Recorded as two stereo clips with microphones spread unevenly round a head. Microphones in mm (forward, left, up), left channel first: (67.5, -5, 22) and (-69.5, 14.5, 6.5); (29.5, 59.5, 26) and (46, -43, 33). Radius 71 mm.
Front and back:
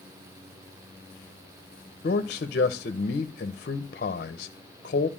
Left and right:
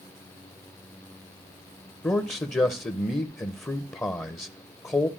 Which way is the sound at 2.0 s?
30° left.